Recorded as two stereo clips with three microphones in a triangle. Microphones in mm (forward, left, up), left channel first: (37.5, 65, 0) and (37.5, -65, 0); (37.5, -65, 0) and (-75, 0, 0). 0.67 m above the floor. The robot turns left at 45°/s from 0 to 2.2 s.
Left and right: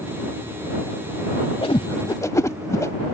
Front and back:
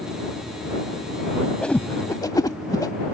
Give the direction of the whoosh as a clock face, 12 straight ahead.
10 o'clock.